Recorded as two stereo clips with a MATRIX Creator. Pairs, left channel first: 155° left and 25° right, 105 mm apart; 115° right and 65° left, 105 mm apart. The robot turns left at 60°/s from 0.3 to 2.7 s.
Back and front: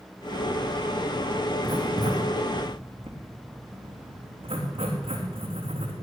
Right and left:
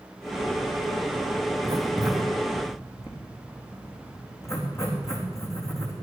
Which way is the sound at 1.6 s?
10° left.